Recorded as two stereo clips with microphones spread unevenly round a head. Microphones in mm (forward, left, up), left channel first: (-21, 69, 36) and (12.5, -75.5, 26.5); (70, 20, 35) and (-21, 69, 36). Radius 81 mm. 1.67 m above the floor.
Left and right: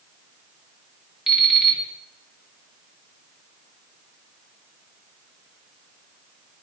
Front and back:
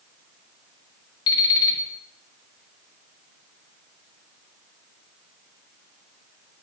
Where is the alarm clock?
10° left, 1.8 m.